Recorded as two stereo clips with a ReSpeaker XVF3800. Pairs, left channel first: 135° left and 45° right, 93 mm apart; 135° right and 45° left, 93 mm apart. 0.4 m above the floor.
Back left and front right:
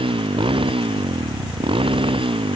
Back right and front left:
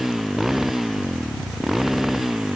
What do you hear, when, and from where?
0.0 s a motorcycle: 40° right